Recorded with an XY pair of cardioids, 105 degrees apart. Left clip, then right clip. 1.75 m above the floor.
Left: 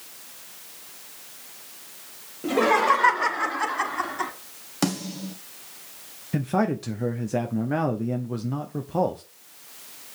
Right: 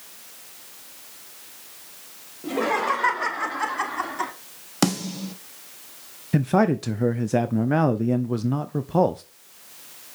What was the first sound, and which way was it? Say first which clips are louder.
Laughter: left 4 dB; 30° left.